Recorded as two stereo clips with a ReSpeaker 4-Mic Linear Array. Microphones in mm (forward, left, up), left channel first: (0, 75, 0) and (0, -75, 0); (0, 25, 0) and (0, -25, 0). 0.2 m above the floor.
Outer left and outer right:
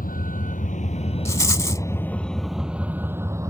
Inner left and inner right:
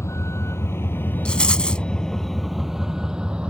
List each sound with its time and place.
0.0 s a vehicle: 75° left (ahead or behind); by 3.5 s 20° right (ahead or behind)
1.2 s a rattle: 20° left (ahead or behind)